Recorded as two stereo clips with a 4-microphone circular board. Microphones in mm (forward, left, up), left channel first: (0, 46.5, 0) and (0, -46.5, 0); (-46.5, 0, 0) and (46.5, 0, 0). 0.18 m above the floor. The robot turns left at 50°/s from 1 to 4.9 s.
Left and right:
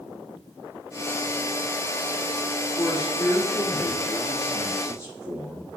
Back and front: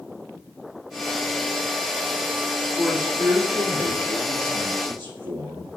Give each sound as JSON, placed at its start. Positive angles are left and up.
{"t": 2.8, "sound": "a man speaking", "azimuth_deg": 75, "distance_m": 4.5}